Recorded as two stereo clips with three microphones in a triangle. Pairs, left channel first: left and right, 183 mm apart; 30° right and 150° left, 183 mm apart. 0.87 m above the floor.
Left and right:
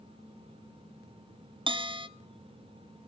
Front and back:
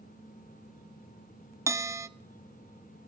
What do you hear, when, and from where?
1.7 s a bell: 140° right, 0.8 m